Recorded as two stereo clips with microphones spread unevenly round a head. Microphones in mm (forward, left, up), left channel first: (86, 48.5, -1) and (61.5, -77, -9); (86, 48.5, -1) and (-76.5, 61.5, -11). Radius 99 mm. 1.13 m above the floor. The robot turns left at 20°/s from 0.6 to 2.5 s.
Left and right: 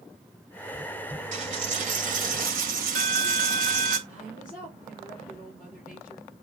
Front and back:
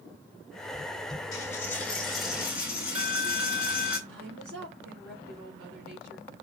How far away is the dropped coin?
About 2.5 m.